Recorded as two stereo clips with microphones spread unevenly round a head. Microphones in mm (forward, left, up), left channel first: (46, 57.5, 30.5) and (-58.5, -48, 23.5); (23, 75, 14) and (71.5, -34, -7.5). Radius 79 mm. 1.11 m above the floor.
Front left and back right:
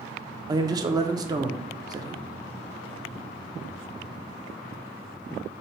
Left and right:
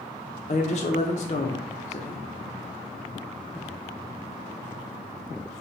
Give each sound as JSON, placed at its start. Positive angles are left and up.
{"t": 0.5, "sound": "a man speaking", "azimuth_deg": 165, "distance_m": 0.5}